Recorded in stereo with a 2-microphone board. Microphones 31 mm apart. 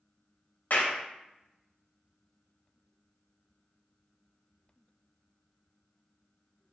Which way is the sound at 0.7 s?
65° left (ahead or behind).